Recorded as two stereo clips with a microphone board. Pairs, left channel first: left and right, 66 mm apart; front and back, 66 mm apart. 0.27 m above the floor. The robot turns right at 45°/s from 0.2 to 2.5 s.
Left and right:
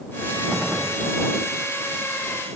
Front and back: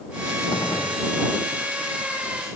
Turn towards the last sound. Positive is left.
turn(degrees=90)